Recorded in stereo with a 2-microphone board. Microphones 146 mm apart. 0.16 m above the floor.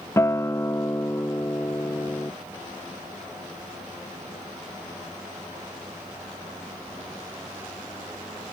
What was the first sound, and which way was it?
A guitar, 20° left (ahead or behind).